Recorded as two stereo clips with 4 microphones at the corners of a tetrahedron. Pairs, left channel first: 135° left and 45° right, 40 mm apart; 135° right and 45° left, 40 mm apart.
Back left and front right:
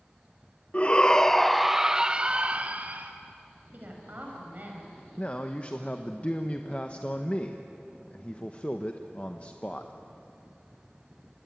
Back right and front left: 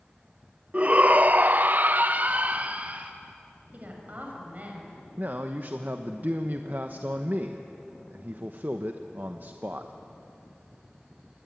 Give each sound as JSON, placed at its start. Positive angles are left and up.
{"t": 0.7, "sound": "a shout", "azimuth_deg": 90, "distance_m": 0.9}
{"t": 3.7, "sound": "a woman speaking", "azimuth_deg": -5, "distance_m": 5.5}
{"t": 5.2, "sound": "a man speaking", "azimuth_deg": 80, "distance_m": 1.0}